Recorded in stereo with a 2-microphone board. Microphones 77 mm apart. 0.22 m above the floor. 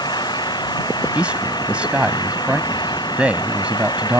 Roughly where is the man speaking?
Centre.